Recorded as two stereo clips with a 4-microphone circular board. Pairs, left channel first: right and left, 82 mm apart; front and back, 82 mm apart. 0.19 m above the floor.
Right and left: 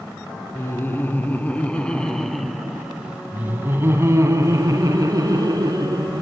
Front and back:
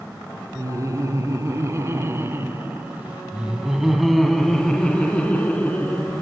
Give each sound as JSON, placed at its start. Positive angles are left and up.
{"t": 0.6, "sound": "laughter", "azimuth_deg": -145, "distance_m": 1.8}